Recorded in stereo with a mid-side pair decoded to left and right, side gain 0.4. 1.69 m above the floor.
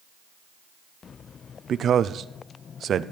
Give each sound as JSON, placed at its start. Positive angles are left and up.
{"t": 1.7, "sound": "a man speaking", "azimuth_deg": -60, "distance_m": 0.6}